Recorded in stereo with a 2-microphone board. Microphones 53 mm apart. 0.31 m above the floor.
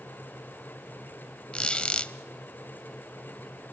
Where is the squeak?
20° left (ahead or behind), 0.6 m.